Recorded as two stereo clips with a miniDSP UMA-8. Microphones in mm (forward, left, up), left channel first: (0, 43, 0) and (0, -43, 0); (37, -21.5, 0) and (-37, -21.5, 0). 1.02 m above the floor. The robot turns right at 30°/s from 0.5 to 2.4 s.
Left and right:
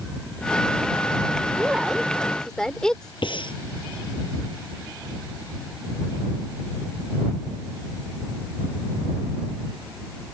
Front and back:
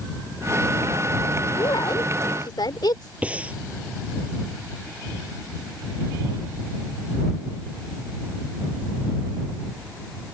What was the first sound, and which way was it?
A woman speaking, 15° right.